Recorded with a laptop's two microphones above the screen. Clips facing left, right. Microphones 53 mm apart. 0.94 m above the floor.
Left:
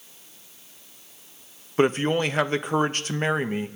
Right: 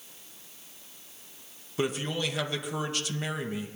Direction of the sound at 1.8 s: 45° left (ahead or behind).